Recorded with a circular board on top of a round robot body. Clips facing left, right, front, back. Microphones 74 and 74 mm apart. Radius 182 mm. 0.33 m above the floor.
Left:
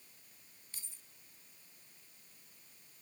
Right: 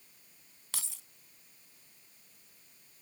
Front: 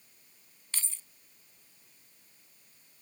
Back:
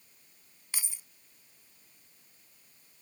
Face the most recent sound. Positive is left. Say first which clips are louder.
# right 13 dB, even
turn(degrees=-105)